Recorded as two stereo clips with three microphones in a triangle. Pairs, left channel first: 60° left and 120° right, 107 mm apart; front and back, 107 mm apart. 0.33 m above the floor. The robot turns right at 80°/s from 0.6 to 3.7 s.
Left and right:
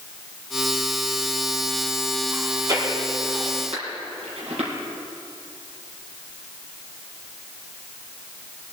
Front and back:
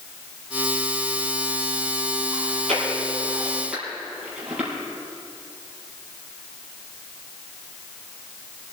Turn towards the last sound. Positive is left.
turn(degrees=-100)